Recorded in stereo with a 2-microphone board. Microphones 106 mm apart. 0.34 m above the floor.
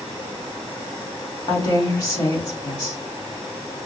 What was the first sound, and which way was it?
A woman speaking, 45° left (ahead or behind).